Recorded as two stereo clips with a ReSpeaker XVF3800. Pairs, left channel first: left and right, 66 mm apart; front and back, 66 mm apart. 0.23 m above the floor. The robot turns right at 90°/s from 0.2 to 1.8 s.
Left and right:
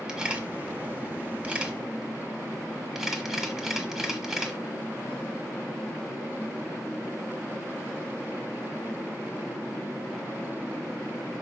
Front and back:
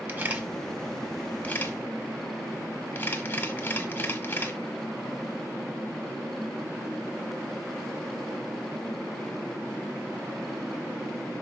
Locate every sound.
0.1 s a camera shutter: 150° right, 1.3 m; by 4.6 s 10° right, 1.3 m